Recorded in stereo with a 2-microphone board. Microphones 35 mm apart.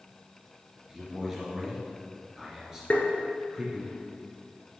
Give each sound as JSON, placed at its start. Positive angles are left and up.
{"t": 0.9, "sound": "a man speaking", "side_deg": -20, "distance_m": 2.5}
{"t": 2.9, "sound": "tapping", "side_deg": 40, "distance_m": 1.7}